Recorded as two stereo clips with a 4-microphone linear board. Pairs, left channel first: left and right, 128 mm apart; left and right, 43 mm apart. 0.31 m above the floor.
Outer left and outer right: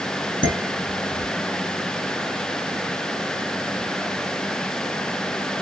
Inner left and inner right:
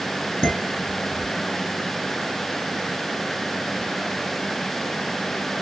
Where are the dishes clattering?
30° left (ahead or behind), 2.5 m.